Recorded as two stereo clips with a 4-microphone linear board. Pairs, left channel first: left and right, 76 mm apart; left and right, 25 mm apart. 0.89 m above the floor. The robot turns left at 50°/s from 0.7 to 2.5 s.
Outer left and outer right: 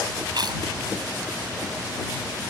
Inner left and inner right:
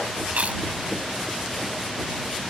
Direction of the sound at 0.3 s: 70° right (ahead or behind).